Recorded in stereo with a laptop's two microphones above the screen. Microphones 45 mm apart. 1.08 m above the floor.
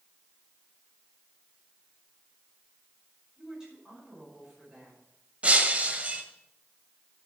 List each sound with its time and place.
3.4 s a woman speaking: 15° right (ahead or behind), 5.5 m
5.4 s breaking glass: 30° right (ahead or behind), 1.6 m